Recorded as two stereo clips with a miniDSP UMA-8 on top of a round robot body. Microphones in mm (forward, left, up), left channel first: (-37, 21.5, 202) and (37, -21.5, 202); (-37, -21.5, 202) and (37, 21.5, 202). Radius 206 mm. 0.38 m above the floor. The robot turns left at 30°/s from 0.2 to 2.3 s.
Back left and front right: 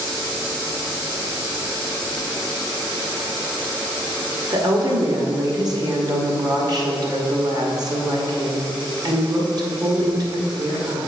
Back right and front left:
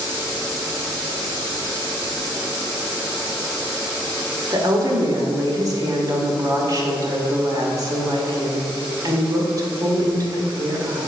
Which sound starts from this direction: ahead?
A woman speaking, at 4.5 s.